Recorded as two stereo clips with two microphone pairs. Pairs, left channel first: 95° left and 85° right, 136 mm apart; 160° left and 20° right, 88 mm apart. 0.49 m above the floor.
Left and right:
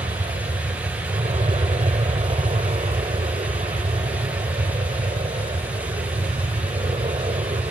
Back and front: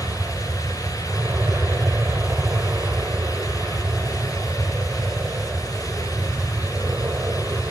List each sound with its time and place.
0.0 s an aircraft: 70° right